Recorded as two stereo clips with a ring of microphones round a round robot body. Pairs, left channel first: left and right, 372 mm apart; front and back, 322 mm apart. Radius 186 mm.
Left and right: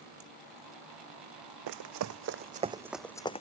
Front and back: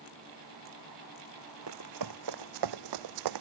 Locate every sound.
1.7 s running footsteps: 130° right; by 3.4 s 165° left